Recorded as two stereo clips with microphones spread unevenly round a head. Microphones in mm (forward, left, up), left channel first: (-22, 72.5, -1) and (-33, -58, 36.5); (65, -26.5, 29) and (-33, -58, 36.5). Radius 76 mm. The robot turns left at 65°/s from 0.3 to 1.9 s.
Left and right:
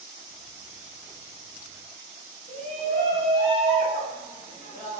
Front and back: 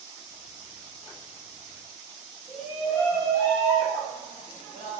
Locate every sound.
2.5 s a shout: 85° left, 1.3 m